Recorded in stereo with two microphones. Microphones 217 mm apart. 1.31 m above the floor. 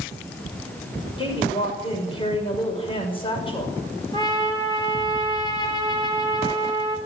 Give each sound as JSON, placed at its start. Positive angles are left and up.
{"t": 1.2, "sound": "a woman speaking", "side_deg": 25, "distance_m": 6.0}
{"t": 4.1, "sound": "a trumpet", "side_deg": 20, "distance_m": 4.0}